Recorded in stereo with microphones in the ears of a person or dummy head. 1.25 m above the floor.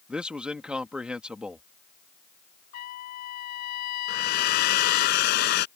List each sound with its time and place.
0.1 s a man speaking: 5° right (ahead or behind)
2.7 s a trumpet: 55° left (ahead or behind)
4.1 s a hair dryer: 55° left (ahead or behind)